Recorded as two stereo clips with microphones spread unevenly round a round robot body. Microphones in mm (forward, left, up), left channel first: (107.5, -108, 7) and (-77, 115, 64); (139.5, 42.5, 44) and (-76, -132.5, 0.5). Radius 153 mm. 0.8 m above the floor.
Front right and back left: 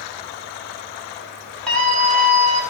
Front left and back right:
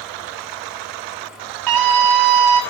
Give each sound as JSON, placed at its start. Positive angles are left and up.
{"t": 1.7, "sound": "a scream", "azimuth_deg": -135, "distance_m": 5.5}